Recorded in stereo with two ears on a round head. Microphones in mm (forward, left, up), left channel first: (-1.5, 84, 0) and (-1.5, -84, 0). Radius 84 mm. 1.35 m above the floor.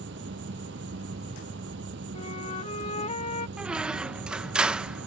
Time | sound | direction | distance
0.0 | an insect | 65° right (ahead or behind) | ?
2.1 | a flute | 35° left (ahead or behind) | ?
3.6 | a squeak | 5° right (ahead or behind) | ?